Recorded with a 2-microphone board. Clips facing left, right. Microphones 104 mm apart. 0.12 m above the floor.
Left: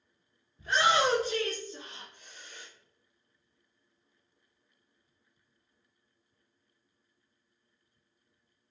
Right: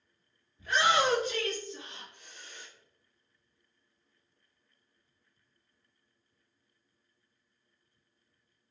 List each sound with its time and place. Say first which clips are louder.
0.6 s a shout: left 1 dB; 30° left (ahead or behind), 1.7 m; by 2.7 s 50° left (ahead or behind), 2 m